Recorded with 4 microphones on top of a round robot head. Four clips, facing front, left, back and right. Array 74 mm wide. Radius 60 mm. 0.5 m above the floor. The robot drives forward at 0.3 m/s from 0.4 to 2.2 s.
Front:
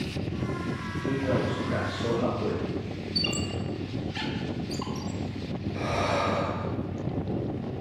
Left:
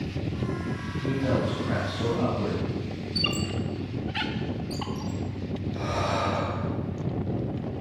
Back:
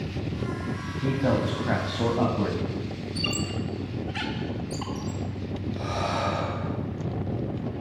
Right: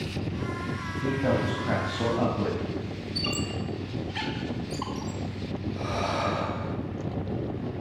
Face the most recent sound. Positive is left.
turn(degrees=25)